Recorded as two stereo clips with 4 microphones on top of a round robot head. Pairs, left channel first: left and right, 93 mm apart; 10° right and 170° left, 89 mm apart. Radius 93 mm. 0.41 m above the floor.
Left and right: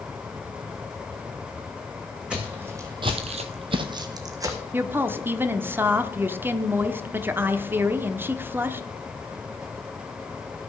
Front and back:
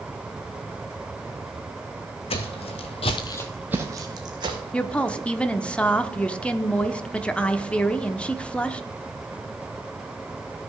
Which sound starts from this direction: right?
A woman speaking, at 4.7 s.